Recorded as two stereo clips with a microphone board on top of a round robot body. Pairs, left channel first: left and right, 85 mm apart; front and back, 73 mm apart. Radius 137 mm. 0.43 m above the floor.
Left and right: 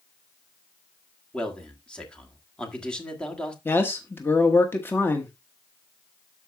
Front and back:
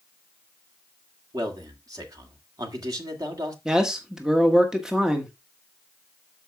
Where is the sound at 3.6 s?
105° left, 1.3 m.